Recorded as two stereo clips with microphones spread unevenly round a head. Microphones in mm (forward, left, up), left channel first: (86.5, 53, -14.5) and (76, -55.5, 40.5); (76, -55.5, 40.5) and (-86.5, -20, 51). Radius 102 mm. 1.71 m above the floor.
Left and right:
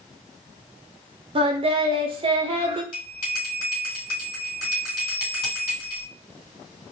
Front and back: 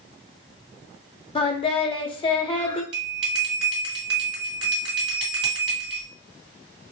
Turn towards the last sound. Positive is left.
turn(degrees=125)